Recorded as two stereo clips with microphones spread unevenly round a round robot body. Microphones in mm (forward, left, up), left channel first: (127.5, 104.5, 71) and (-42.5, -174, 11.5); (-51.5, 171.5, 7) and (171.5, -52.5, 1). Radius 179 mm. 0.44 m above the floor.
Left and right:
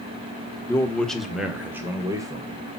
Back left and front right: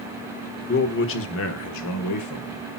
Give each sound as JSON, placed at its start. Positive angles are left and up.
{"t": 0.7, "sound": "a man speaking", "azimuth_deg": 155, "distance_m": 1.3}